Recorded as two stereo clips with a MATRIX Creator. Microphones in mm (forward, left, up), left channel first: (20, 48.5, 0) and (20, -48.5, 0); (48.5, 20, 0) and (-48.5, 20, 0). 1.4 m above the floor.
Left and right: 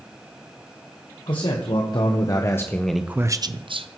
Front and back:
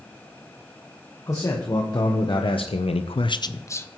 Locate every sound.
1.3 s a man speaking: 55° left, 1.5 m; by 3.9 s 65° right, 0.8 m